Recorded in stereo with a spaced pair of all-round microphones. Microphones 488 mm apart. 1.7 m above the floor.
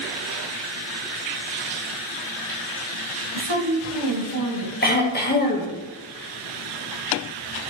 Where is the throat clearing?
20° left (ahead or behind), 1.6 m.